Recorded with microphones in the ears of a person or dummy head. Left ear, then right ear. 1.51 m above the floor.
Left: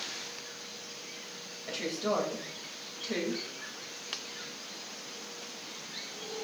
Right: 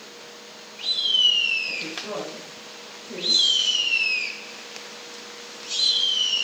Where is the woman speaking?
50° left (ahead or behind), 2.5 m.